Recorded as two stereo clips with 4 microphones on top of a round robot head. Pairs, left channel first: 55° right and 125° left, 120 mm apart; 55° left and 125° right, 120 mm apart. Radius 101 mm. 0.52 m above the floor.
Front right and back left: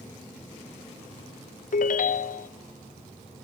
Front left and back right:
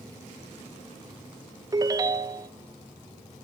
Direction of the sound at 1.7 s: 65° right.